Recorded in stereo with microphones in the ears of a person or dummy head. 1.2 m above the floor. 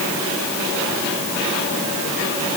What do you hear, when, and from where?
Only background noise.